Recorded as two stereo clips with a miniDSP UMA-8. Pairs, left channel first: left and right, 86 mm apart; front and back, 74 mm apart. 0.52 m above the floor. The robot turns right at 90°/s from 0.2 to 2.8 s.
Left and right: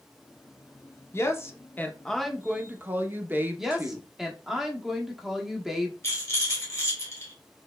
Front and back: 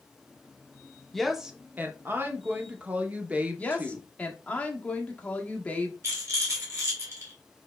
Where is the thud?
I don't hear a thud.